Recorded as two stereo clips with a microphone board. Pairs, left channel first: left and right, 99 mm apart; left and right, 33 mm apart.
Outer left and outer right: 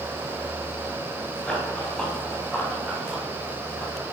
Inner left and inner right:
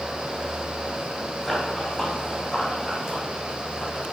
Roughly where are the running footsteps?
Centre.